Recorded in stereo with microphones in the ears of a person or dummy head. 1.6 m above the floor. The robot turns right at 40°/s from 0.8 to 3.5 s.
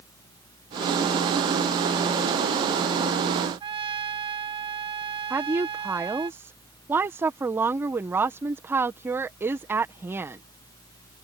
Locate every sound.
3.6 s a trumpet: 30° right (ahead or behind)
5.3 s a woman speaking: 15° right (ahead or behind)